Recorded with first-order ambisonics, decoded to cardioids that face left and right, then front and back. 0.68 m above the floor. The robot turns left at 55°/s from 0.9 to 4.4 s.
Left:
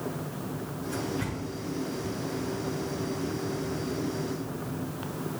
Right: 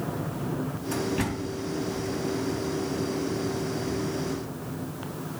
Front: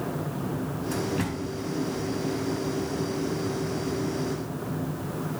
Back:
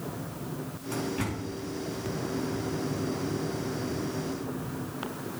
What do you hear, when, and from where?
0.9 s a door slam: 50° right, 4.5 m; by 1.5 s 85° right, 4.5 m